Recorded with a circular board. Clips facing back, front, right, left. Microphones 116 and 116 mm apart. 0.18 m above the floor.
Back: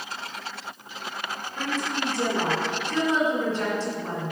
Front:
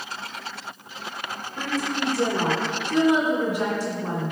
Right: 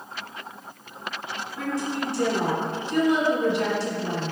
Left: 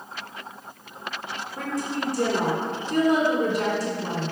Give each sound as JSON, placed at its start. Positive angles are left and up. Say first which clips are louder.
{"t": 1.6, "sound": "a woman speaking", "louder": "front 2 dB, right 1 dB", "azimuth_deg": 70, "distance_m": 1.9}